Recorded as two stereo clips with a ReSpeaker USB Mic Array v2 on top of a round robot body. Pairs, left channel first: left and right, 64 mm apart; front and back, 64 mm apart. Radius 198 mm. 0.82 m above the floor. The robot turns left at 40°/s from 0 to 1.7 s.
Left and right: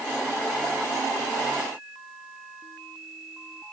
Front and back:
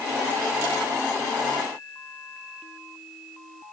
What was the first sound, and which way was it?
Only background noise.